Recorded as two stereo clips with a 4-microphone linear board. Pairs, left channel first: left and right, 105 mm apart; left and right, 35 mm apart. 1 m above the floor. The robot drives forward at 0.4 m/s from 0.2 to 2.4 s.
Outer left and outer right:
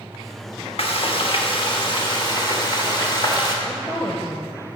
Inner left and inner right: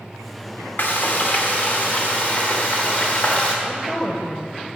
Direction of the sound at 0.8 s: 65° left (ahead or behind).